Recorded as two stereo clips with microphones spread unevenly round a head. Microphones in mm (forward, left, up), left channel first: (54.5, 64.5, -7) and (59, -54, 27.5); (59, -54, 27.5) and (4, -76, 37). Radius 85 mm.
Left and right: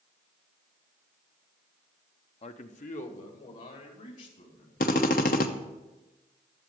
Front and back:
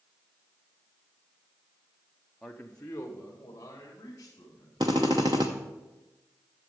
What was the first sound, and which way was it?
A man speaking, 105° left.